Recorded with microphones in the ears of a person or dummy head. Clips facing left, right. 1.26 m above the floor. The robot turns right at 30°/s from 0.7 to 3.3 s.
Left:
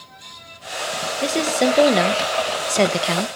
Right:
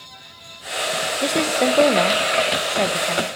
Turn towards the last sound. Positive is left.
turn(degrees=60)